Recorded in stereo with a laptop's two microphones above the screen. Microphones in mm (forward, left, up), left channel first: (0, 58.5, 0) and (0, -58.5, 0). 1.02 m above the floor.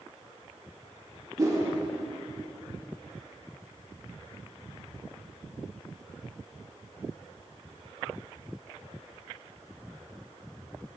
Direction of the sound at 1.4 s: 30° right (ahead or behind).